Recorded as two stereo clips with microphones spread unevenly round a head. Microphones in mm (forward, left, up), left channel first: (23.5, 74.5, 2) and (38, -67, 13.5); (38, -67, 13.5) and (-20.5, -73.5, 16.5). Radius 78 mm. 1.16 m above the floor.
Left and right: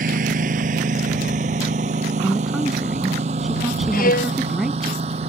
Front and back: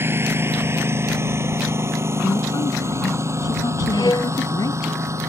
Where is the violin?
70° left.